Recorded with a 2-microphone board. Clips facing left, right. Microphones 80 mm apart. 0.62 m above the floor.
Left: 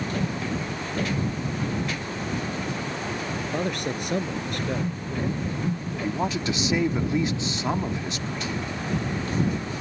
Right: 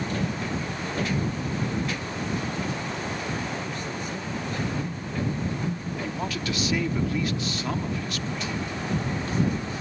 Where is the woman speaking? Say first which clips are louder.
Left 5 dB; 25° left (ahead or behind).